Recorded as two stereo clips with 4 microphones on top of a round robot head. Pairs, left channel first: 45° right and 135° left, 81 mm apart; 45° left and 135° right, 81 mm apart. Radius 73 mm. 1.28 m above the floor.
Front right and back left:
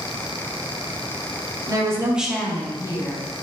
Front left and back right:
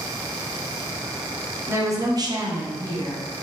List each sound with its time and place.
1.7 s a woman speaking: 170° left, 0.8 m; by 3.3 s 80° right, 1.2 m